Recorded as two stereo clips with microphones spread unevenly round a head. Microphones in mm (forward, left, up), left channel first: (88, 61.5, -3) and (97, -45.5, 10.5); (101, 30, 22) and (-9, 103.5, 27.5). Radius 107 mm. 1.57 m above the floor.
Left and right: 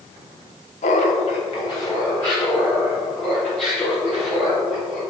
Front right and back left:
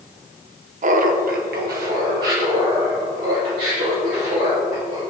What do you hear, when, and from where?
0.8 s laughter: 130° left, 0.9 m; by 5.0 s 170° right, 5 m